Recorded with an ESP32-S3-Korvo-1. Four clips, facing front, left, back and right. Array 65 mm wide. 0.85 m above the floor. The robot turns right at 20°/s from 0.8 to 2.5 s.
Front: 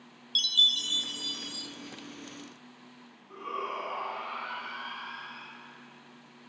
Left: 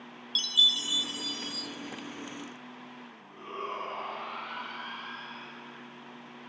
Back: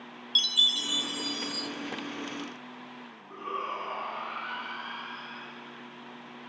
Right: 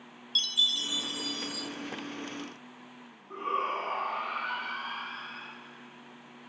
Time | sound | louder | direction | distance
0.3 | a chime | left 2 dB, even | 160° right | 1.4 m
3.3 | a shout | right 7 dB, back 1 dB | 85° right | 7 m